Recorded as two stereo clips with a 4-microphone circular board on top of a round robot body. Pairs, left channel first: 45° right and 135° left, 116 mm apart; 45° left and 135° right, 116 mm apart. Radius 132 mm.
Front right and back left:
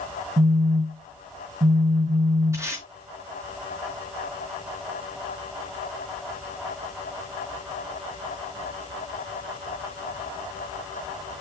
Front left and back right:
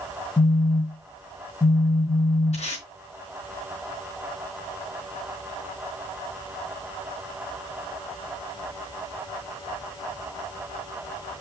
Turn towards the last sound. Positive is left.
turn(degrees=70)